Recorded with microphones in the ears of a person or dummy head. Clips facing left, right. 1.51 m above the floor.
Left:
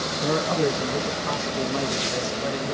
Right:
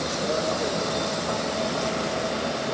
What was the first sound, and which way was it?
A man speaking, 75° left (ahead or behind).